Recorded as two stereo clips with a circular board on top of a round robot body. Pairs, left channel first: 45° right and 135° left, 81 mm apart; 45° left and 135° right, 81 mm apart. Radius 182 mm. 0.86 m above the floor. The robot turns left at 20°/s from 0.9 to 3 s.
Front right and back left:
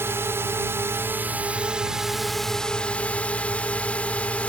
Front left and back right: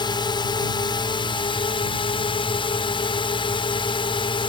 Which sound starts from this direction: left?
A drone, at 0.0 s.